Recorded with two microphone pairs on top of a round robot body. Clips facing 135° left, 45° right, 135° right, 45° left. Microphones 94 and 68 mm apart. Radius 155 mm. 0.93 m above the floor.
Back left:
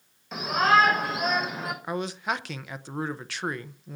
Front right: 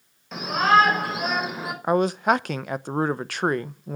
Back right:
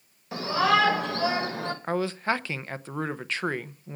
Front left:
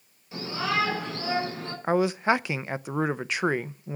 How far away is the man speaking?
About 0.9 m.